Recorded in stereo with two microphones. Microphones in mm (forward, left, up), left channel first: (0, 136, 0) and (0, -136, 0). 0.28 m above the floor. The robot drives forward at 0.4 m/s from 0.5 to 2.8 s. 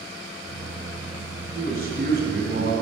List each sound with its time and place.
1.5 s a man speaking: 35° right (ahead or behind), 2 m; by 2.7 s 45° right (ahead or behind), 1.8 m